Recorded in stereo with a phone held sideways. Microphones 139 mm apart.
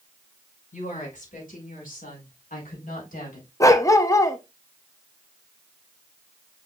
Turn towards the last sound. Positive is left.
turn(degrees=25)  # may be behind; listen again after turning